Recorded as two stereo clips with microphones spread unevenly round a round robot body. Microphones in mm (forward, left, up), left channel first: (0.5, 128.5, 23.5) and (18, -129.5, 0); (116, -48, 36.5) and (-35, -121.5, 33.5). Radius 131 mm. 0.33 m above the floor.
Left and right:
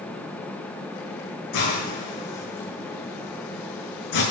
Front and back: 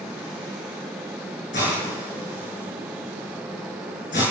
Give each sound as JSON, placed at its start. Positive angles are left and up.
{"t": 1.5, "sound": "a hiss", "azimuth_deg": 85, "distance_m": 8.5}